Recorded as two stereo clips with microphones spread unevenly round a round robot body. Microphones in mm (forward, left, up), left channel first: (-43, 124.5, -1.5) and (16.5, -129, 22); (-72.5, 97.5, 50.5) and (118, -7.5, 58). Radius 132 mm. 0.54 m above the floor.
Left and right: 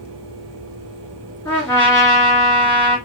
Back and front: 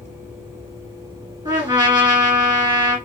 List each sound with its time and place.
1.4 s a trumpet: 35° left, 1.5 m